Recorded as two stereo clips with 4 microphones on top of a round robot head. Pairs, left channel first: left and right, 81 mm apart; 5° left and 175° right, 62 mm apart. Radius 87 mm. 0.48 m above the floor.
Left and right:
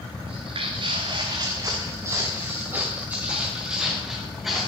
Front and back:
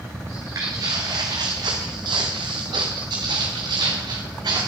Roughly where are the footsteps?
Behind right.